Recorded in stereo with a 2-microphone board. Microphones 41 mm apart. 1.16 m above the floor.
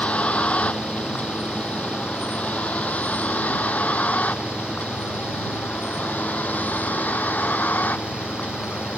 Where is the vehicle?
30° left (ahead or behind); by 9.0 s 45° left (ahead or behind).